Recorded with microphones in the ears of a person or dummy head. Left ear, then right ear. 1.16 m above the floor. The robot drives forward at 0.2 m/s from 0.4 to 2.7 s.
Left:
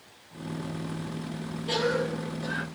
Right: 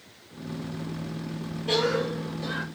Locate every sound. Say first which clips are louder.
1.7 s a cough: right 2 dB; 20° right (ahead or behind), 1.5 m; by 2.6 s 15° right (ahead or behind), 1.7 m